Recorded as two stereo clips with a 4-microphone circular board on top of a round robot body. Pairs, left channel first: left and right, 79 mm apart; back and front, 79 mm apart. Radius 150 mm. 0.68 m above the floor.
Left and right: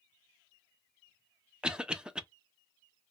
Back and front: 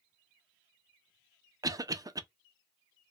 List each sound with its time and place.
1.6 s a cough: 15° right, 0.7 m